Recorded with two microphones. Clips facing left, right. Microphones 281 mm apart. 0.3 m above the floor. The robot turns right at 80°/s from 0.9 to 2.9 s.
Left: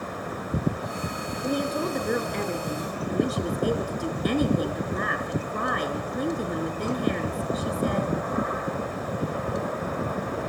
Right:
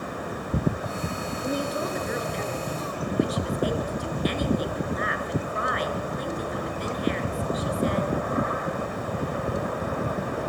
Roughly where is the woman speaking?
Ahead.